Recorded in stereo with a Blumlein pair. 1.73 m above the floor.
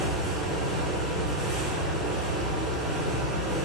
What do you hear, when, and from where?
0.0 s a fan: straight ahead, 1.4 m